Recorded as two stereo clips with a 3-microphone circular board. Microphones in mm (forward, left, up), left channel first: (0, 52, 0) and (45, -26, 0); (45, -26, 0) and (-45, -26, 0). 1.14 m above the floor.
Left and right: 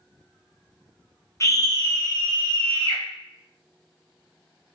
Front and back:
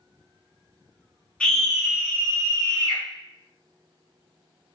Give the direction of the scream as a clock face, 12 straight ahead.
10 o'clock.